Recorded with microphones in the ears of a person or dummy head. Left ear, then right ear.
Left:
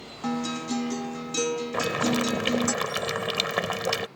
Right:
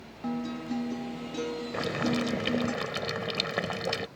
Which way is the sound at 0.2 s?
80° left.